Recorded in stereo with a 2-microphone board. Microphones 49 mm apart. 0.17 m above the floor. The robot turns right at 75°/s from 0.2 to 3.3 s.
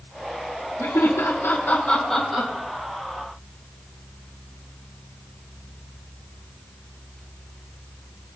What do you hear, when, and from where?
0.8 s laughter: 65° left (ahead or behind), 6 m; by 2.5 s 15° right (ahead or behind), 6 m